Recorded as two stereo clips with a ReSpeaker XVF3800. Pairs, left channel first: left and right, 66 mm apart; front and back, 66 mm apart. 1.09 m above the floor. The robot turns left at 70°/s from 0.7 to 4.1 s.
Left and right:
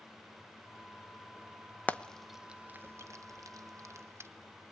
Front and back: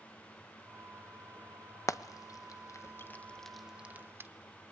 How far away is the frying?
About 1.1 m.